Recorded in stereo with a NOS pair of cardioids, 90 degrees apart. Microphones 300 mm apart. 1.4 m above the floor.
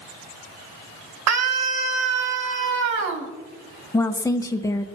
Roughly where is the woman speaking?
Ahead.